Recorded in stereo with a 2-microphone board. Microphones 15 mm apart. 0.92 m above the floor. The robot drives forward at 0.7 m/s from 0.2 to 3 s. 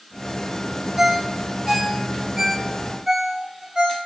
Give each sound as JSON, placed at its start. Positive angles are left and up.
{"t": 1.0, "sound": "a ringtone", "side_deg": -25, "distance_m": 1.1}